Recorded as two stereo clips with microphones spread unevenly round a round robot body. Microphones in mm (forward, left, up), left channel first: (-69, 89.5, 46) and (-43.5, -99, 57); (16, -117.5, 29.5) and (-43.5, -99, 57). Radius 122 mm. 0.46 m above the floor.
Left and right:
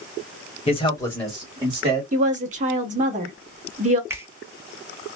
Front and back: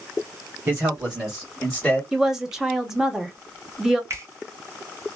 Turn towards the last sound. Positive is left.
turn(degrees=-150)